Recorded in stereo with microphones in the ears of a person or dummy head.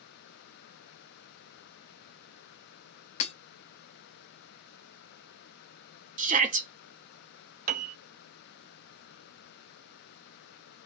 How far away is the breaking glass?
About 0.8 m.